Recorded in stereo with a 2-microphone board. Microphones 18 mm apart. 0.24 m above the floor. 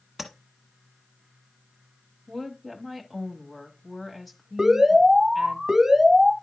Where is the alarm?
25° right (ahead or behind), 1.6 m.